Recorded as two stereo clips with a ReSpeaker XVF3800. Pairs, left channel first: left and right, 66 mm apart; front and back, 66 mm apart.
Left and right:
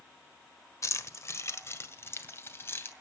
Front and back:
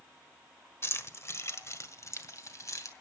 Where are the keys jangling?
50° left, 1.5 m; by 2.9 s 35° left, 2.5 m.